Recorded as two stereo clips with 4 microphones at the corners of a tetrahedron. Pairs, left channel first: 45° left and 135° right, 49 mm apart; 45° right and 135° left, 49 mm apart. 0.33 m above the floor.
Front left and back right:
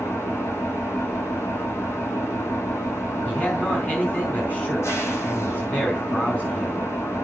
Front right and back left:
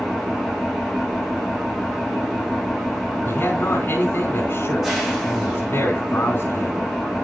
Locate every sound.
0.0 s an engine running: 50° left, 6.5 m
3.2 s a man speaking: 10° right, 3 m